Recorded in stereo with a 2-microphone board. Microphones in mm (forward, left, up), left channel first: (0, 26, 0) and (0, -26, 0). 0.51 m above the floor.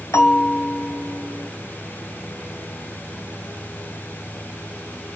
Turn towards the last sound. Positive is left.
turn(degrees=75)  # may be behind; listen again after turning